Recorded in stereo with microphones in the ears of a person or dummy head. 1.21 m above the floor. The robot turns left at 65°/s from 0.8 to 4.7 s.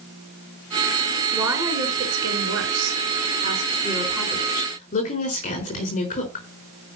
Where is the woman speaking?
5° left, 4 m; by 6.4 s 145° left, 4 m.